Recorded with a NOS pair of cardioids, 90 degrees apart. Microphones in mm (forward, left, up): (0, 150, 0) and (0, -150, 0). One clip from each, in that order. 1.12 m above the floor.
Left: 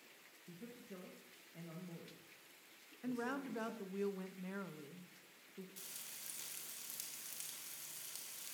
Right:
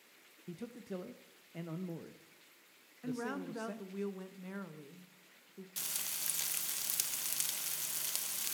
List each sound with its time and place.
0.5 s a man speaking: 55° right, 0.7 m
3.0 s a woman speaking: 5° right, 0.9 m
5.8 s frying: 65° right, 0.7 m